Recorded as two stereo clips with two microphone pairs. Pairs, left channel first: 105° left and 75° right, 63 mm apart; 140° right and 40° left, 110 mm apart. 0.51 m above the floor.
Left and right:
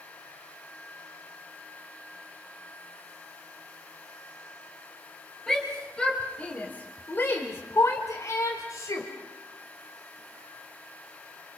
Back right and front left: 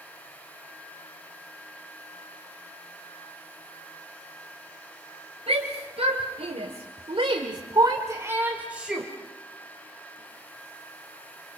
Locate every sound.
5.5 s a shout: 25° left, 3 m; by 9.1 s 125° left, 2 m